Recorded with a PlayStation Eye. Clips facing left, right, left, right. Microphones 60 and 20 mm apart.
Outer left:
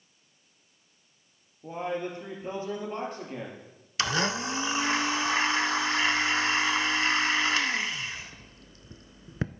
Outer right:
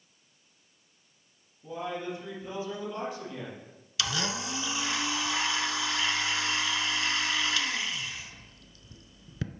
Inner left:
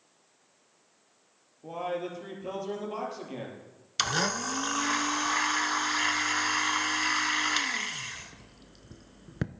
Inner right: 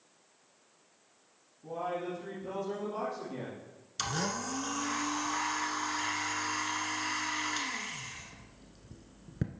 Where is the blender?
40° left (ahead or behind), 0.5 m.